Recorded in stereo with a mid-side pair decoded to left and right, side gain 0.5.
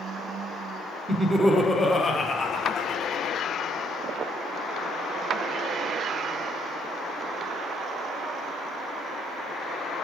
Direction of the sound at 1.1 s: 40° right.